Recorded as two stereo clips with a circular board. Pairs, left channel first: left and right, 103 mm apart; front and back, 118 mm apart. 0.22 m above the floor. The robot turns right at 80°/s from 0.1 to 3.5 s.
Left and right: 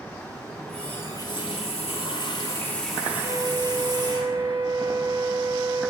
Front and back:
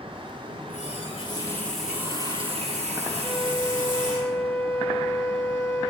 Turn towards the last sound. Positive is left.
turn(degrees=-85)